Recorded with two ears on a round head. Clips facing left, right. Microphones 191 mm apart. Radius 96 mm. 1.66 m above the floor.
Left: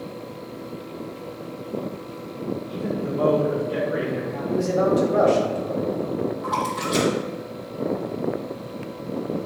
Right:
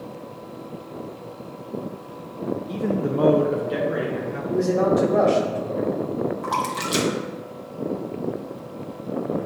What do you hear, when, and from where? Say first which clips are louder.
2.7 s a man speaking: right 5 dB; 60° right (ahead or behind), 1.0 m; by 4.4 s 10° right (ahead or behind), 2.5 m
4.5 s a man speaking: right 1 dB; 5° left (ahead or behind), 3 m
6.4 s a splash: left 1 dB; 65° right (ahead or behind), 1.8 m